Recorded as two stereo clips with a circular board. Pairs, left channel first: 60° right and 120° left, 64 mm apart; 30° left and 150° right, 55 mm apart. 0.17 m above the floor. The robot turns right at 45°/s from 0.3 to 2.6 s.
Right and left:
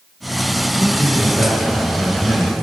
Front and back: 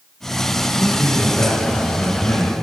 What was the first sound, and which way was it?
A man speaking, 45° right.